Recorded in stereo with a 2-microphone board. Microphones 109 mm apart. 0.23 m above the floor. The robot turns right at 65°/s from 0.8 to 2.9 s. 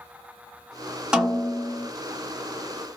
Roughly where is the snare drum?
Centre.